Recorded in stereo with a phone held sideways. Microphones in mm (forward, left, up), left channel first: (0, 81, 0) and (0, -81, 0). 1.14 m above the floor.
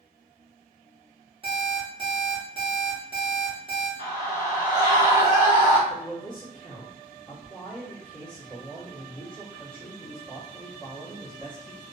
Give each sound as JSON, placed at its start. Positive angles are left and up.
{"t": 1.4, "sound": "an alarm clock", "side_deg": -30, "distance_m": 1.0}
{"t": 4.0, "sound": "a scream", "side_deg": -50, "distance_m": 1.3}
{"t": 5.9, "sound": "a man speaking", "side_deg": 30, "distance_m": 1.1}